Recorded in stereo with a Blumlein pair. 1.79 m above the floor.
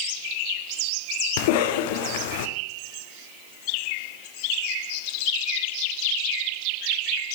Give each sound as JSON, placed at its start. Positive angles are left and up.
{"t": 1.4, "sound": "a cough", "azimuth_deg": 50, "distance_m": 0.5}